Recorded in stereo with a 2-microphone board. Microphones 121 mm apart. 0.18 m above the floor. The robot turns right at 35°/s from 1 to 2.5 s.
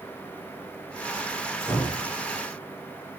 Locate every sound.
1.6 s a door slam: 10° left (ahead or behind), 9 m; by 2.1 s 25° left (ahead or behind), 9 m